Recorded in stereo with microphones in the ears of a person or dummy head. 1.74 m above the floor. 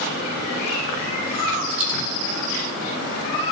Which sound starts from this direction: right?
A dropped coin, at 1.7 s.